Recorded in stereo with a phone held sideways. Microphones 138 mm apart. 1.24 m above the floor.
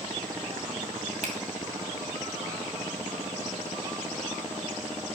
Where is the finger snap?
55° right (ahead or behind), 2.5 m.